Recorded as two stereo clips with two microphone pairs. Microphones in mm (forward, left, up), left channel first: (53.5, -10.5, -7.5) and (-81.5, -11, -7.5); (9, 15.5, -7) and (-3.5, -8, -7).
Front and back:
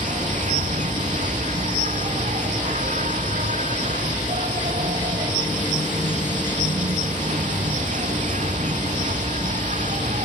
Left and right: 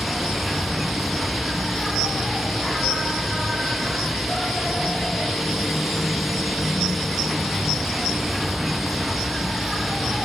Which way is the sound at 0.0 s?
155° left.